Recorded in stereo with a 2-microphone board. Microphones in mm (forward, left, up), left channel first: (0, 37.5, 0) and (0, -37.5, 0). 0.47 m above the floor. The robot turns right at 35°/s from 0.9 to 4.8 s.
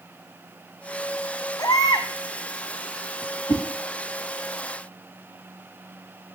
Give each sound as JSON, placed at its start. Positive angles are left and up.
{"t": 1.6, "sound": "a baby crying", "side_deg": 55, "distance_m": 1.1}
{"t": 3.5, "sound": "a whoosh", "side_deg": 80, "distance_m": 2.0}